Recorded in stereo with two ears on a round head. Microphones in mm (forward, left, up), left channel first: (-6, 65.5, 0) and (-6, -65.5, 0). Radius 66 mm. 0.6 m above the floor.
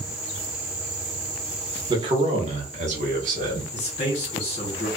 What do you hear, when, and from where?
1.9 s a man speaking: 30° right (ahead or behind), 0.9 m; by 3.6 s 65° right (ahead or behind), 1.4 m
3.7 s a man speaking: 45° left (ahead or behind), 1.5 m